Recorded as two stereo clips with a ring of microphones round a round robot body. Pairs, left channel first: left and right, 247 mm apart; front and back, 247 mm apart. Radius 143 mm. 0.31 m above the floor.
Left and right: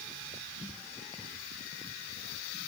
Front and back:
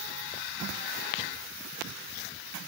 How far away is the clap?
No clap in this recording.